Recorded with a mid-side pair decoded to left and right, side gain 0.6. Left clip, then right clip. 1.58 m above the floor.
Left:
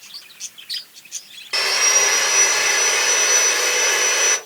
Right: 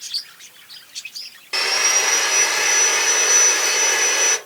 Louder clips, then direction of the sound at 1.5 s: Left 1 dB; 5° left.